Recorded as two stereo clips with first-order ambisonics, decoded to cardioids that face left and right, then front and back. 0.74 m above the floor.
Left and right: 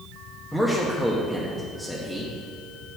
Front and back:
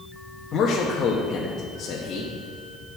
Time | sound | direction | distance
0.5 | a man speaking | 5° right | 0.8 m